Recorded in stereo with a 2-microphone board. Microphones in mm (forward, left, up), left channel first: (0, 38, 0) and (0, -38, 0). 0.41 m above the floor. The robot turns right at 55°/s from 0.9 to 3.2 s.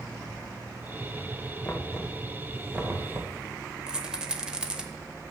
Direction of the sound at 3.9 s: 10° right (ahead or behind).